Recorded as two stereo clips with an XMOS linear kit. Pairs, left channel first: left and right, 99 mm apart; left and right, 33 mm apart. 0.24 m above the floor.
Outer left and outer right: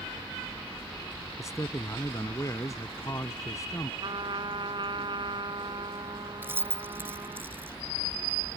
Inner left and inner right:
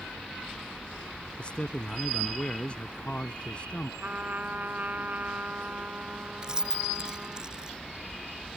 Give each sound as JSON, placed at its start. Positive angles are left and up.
{"t": 1.4, "sound": "a man speaking", "side_deg": 35}
{"t": 4.0, "sound": "a trumpet", "side_deg": -55}
{"t": 6.4, "sound": "keys jangling", "side_deg": -20}